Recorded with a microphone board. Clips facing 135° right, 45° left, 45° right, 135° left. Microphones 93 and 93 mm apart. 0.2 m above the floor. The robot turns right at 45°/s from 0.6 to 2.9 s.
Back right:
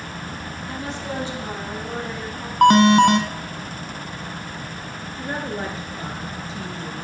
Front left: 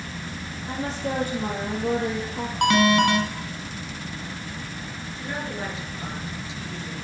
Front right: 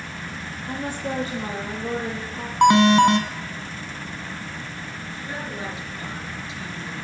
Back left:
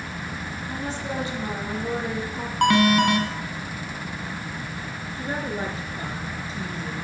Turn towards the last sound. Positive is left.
turn(degrees=180)